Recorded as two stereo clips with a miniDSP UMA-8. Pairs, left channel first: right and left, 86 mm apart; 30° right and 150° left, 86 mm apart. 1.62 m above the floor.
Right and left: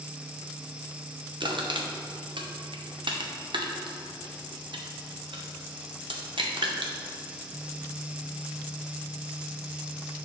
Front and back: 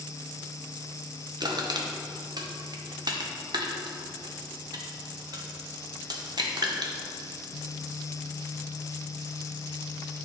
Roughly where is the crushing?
Behind left.